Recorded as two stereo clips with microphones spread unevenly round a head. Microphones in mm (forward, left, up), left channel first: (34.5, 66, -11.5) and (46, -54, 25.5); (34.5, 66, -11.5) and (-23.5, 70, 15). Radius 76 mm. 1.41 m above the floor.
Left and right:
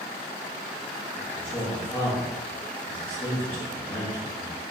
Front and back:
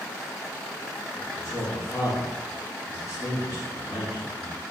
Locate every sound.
1.2 s a man speaking: 25° left, 1.3 m